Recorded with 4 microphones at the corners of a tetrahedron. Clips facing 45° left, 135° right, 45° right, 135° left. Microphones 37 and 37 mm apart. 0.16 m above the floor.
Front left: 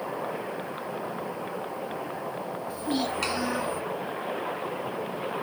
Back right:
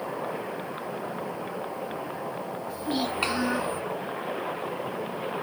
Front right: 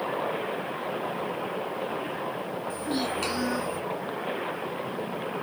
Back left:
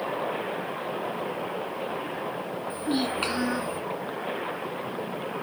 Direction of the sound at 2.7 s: 140° left.